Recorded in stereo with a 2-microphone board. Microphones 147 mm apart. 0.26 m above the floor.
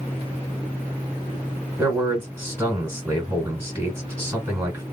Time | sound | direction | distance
1.8 | a man speaking | 15° right (ahead or behind) | 1.8 m